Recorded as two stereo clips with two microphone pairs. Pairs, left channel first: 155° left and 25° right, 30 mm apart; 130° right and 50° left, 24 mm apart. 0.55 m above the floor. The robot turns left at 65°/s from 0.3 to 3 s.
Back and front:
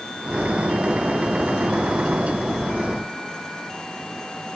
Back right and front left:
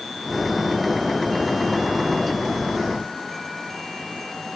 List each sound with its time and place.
Only background noise.